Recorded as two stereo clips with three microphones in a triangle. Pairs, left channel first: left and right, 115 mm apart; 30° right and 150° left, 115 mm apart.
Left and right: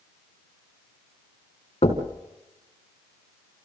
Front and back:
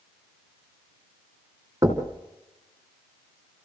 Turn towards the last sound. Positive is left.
turn(degrees=95)